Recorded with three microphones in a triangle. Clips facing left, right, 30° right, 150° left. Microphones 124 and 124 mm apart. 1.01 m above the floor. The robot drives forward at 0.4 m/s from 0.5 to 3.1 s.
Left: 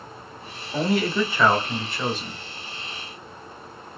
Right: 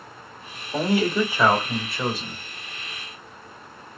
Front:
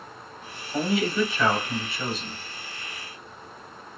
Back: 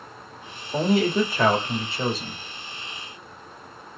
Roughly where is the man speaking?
Behind.